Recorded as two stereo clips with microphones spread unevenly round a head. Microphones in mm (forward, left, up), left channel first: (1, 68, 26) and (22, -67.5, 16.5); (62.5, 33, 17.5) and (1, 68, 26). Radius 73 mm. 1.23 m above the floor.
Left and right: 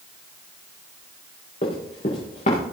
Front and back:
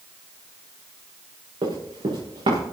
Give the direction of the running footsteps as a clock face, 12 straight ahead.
7 o'clock.